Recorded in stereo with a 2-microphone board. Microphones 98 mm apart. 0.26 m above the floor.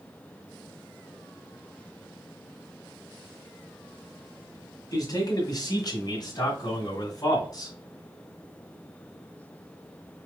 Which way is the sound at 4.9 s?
45° left (ahead or behind).